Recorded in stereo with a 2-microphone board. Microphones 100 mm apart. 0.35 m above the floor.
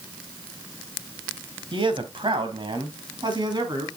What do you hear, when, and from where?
1.7 s a man speaking: 60° right (ahead or behind), 2 m; by 3.9 s 45° right (ahead or behind), 3.5 m